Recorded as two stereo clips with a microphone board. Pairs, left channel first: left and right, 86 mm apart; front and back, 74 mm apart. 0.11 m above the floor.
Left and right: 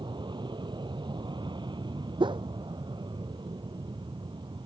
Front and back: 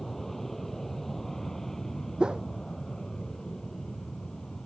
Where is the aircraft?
85° right; by 4.7 s 80° right.